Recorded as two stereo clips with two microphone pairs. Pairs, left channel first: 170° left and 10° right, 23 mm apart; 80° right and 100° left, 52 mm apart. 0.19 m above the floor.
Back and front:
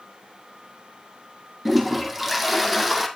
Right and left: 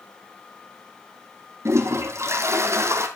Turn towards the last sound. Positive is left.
turn(degrees=70)